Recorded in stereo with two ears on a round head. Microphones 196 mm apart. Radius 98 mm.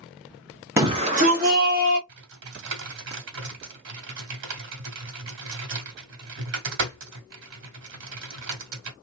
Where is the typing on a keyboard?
60° right (ahead or behind), 1.5 m.